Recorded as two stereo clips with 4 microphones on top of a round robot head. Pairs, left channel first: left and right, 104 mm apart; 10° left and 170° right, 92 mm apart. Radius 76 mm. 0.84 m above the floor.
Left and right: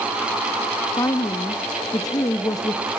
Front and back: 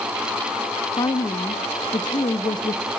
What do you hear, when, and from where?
1.0 s a woman speaking: 40° left, 1.2 m